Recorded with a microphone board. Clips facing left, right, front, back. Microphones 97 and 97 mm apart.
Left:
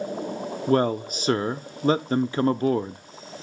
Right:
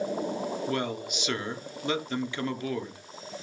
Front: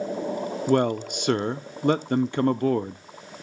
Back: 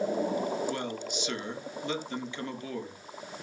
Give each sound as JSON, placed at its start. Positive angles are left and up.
{"t": 0.7, "sound": "a man speaking", "azimuth_deg": 35, "distance_m": 0.6}